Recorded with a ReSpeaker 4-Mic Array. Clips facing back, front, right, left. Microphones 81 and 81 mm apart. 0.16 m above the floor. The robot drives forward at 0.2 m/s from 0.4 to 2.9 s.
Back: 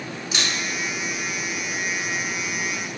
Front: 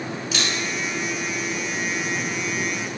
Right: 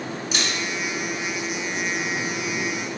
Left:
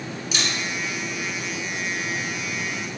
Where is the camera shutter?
115° right, 1.2 m; by 3.0 s 135° right, 1.5 m.